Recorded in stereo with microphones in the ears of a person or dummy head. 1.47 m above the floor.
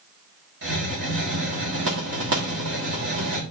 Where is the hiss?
55° right (ahead or behind), 1.6 m.